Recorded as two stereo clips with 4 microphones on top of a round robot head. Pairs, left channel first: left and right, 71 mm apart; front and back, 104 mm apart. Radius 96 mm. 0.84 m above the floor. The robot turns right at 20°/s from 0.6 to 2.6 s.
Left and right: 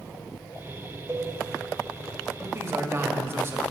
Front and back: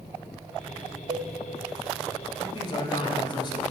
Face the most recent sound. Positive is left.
turn(degrees=-40)